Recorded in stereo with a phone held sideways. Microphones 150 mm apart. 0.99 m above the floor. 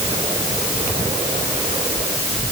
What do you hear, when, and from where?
Only background noise.